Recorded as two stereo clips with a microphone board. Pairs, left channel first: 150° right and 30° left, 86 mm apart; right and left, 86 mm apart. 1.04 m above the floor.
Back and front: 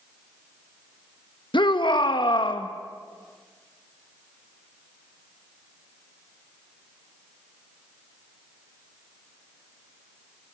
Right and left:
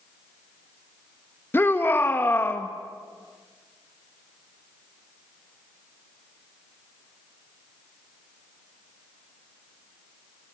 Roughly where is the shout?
Behind right.